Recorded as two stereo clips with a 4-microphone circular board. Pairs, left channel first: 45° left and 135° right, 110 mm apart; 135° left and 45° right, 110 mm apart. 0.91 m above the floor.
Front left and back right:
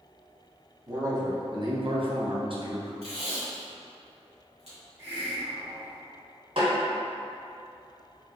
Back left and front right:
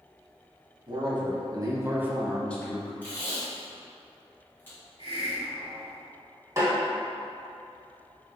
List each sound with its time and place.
0.9 s a man speaking: 80° right, 1.4 m; by 2.9 s straight behind, 0.7 m
3.0 s tape being pulled: 155° right, 2.0 m
5.0 s a hiss: 160° left, 1.7 m
6.6 s a snare drum: 105° right, 1.9 m